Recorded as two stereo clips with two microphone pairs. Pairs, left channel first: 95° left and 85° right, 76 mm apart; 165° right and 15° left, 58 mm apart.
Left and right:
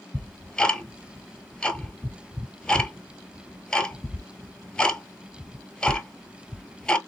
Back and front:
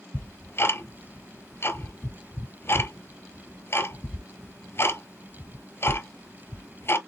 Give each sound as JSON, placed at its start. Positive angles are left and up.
{"t": 0.1, "sound": "ticking", "azimuth_deg": 175, "distance_m": 1.0}